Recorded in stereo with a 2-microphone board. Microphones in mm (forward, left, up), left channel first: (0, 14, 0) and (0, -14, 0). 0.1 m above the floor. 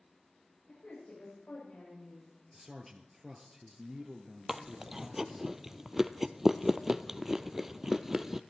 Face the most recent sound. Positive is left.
turn(degrees=-15)  # may be behind; listen again after turning